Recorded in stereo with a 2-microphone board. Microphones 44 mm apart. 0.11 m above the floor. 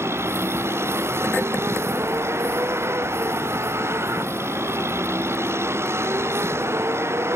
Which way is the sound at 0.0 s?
80° right.